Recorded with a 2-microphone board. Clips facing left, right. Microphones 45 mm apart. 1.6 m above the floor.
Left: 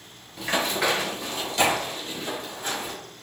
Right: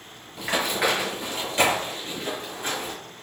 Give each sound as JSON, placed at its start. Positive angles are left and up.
{"t": 0.4, "sound": "running footsteps", "side_deg": -5, "distance_m": 1.8}